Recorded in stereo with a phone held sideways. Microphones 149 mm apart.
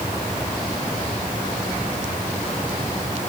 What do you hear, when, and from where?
Only background noise.